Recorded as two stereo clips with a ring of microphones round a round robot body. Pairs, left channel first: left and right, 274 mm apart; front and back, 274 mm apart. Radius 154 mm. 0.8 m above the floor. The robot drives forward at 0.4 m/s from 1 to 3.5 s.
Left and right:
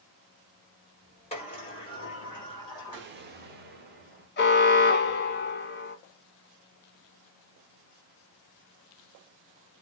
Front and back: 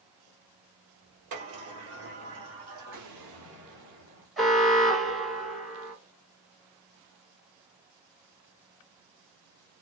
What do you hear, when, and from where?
1.3 s a sliding door: 160° left, 1.7 m; by 3.1 s 165° left, 2.5 m
2.9 s an explosion: 140° right, 1.2 m; by 4.3 s 145° right, 1.4 m
4.4 s an alarm: 90° left, 0.9 m